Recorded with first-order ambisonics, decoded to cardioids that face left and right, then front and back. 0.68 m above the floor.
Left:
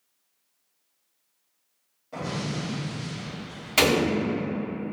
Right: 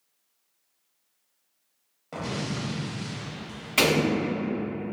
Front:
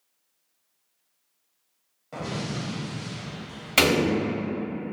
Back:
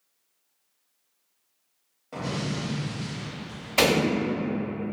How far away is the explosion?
About 0.8 m.